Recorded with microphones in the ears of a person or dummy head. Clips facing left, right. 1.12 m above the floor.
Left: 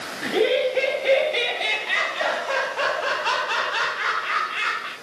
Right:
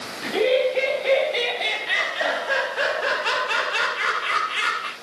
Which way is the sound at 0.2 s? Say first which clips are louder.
Right 1 dB; 15° left (ahead or behind).